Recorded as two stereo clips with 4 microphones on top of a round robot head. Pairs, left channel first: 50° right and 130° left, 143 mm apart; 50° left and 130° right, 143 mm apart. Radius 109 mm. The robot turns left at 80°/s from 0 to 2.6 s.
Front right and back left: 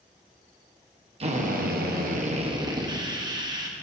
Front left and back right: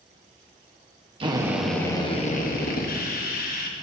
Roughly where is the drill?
Behind.